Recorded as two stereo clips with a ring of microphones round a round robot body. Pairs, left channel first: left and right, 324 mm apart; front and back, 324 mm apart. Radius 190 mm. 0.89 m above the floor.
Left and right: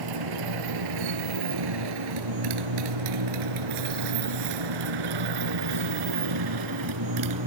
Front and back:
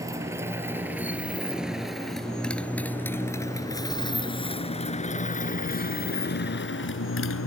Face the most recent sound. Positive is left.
turn(degrees=-50)